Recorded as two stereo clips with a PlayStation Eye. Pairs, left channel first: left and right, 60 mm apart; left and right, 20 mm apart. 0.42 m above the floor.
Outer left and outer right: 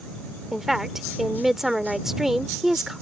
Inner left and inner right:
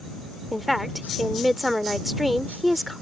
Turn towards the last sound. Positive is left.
turn(degrees=-5)  # may be behind; listen again after turning